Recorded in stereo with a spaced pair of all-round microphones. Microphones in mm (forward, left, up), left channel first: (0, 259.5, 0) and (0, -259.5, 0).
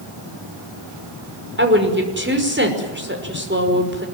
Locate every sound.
1.6 s a woman speaking: 20° right (ahead or behind), 5.5 m